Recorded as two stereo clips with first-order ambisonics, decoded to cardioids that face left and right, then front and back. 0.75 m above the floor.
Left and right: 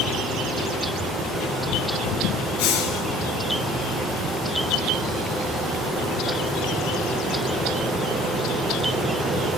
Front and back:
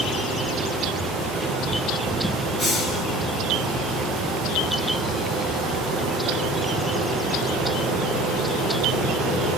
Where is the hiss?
95° left, 5 m.